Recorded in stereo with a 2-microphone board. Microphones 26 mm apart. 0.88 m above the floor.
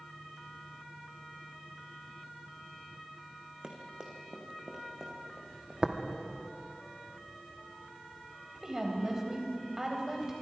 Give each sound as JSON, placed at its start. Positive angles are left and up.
{"t": 3.6, "sound": "running footsteps", "side_deg": -30, "distance_m": 3.0}
{"t": 5.8, "sound": "tapping", "side_deg": -25, "distance_m": 1.3}
{"t": 8.6, "sound": "a woman speaking", "side_deg": -20, "distance_m": 4.0}